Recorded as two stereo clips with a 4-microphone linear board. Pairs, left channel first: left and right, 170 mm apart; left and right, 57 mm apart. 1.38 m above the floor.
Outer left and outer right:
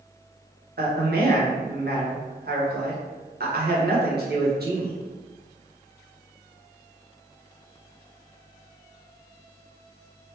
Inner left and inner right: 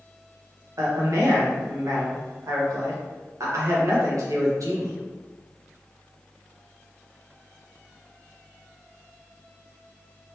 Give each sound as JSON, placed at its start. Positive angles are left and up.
{"t": 0.8, "sound": "a man speaking", "side_deg": -70, "distance_m": 1.1}